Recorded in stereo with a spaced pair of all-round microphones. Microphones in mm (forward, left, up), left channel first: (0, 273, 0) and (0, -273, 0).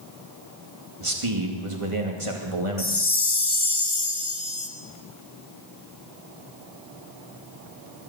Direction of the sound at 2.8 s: 45° left (ahead or behind).